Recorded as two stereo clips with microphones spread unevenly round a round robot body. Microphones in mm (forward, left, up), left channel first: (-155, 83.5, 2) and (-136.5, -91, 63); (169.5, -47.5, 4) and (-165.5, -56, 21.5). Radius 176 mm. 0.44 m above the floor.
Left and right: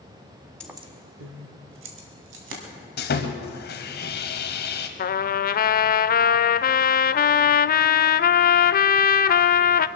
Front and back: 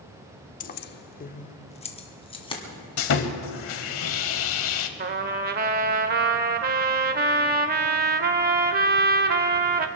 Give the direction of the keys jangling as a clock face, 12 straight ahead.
10 o'clock.